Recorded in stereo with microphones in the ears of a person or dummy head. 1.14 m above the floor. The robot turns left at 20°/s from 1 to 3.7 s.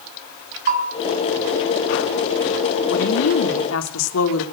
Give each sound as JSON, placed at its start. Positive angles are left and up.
{"t": 0.7, "sound": "a bell", "side_deg": -40, "distance_m": 6.0}
{"t": 2.9, "sound": "a woman speaking", "side_deg": 70, "distance_m": 3.0}